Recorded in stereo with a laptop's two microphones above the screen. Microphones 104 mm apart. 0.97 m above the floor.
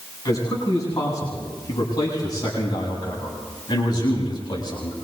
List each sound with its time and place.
0.2 s a man speaking: 35° left (ahead or behind), 9 m; by 5.0 s 45° left (ahead or behind), 6.5 m